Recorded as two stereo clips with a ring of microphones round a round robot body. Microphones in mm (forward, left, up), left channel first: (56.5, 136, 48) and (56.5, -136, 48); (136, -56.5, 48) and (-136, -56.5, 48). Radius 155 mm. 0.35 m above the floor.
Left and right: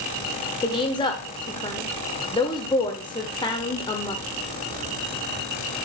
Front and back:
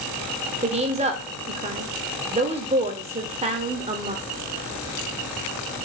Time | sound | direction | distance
0.6 | a woman speaking | 145° left | 0.9 m